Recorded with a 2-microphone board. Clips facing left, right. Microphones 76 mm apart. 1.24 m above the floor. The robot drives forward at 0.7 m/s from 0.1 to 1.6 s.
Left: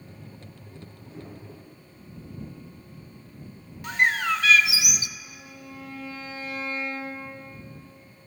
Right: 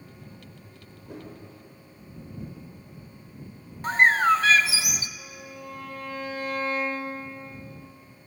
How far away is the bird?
About 0.7 m.